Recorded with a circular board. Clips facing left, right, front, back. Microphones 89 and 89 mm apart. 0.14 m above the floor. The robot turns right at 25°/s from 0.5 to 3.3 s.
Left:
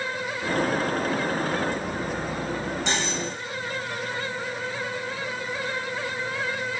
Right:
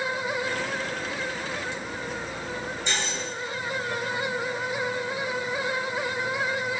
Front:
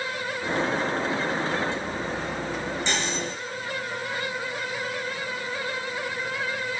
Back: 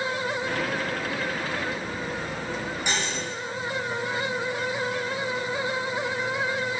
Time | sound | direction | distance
2.9 | cutlery clinking | 100° left | 4.5 m